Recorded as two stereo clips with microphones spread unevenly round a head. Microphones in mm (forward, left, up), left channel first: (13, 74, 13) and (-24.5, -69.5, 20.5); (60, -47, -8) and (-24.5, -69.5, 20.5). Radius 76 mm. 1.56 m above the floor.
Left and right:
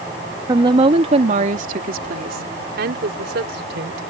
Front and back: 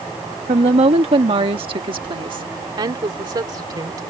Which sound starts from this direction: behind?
A woman speaking, at 0.5 s.